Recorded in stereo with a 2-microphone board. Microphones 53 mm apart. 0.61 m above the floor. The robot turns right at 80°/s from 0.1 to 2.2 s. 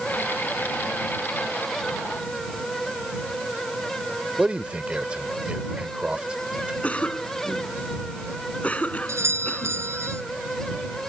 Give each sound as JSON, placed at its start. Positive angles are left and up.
{"t": 4.4, "sound": "a man speaking", "side_deg": -20}
{"t": 6.8, "sound": "a cough", "side_deg": 25}
{"t": 9.1, "sound": "a doorbell", "side_deg": -60}